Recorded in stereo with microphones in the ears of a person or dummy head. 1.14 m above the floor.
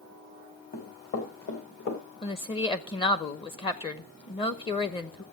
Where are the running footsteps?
45° left (ahead or behind), 3.5 m; by 2.0 s 65° left (ahead or behind), 3.5 m.